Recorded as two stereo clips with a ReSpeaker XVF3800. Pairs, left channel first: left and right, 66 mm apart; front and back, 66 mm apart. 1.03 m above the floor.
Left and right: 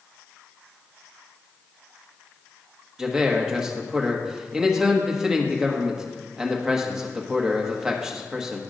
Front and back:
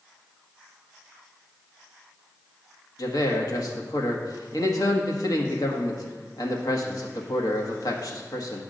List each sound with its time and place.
3.0 s a man speaking: 10° right, 1.5 m